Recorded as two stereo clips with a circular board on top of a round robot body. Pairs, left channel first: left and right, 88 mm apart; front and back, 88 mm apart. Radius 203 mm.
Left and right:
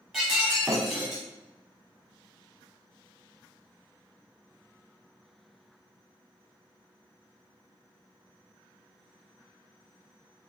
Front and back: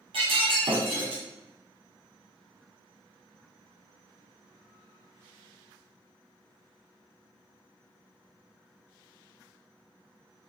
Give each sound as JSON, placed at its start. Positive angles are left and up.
{"t": 0.1, "sound": "breaking glass", "azimuth_deg": 180, "distance_m": 1.1}